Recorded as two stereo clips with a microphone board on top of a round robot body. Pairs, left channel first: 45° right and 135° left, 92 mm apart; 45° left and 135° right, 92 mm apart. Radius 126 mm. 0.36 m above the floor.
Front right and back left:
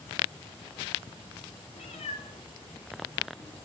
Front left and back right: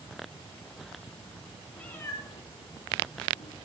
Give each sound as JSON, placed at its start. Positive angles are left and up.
{"t": 1.8, "sound": "a cat meowing", "azimuth_deg": -40, "distance_m": 0.6}